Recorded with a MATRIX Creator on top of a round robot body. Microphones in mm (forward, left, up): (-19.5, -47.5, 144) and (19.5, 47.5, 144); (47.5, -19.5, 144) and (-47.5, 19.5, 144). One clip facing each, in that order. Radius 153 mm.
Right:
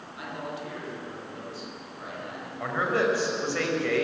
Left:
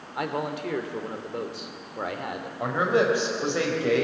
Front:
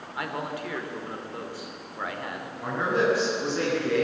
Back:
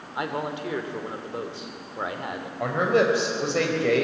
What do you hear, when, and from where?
0.1 s a man speaking: 90° left, 2.5 m
2.6 s a man speaking: 140° left, 5 m